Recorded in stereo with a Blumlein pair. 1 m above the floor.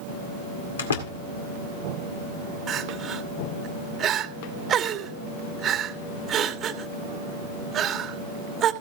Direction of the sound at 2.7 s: 25° right.